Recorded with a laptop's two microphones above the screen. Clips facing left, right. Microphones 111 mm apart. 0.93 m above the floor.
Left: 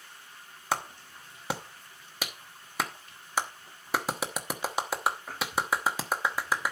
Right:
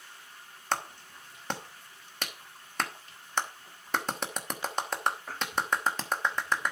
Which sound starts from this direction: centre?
A clap, at 0.7 s.